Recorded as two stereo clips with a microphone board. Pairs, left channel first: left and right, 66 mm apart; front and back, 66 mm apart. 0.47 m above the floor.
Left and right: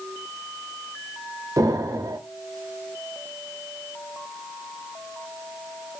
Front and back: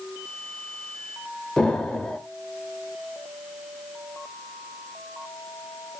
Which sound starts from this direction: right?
An explosion, at 1.6 s.